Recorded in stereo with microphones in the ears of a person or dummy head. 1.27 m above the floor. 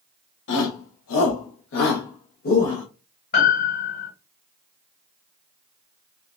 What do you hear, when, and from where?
0.5 s a shout: 80° left, 1.0 m; by 2.8 s 30° left (ahead or behind), 1.1 m
3.3 s a piano: 45° left (ahead or behind), 1.7 m